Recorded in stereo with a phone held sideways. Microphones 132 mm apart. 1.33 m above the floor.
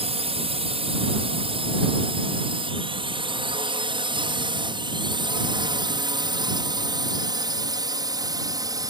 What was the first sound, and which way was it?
A drone, 50° right (ahead or behind).